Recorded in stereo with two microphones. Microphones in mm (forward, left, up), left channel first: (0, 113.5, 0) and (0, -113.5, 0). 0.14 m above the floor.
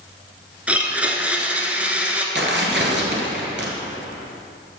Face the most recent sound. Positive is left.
turn(degrees=-55)  # may be behind; listen again after turning